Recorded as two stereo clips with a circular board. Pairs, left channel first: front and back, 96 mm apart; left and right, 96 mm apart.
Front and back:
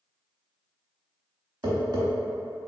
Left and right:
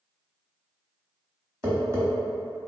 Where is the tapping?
145° right, 1.0 m.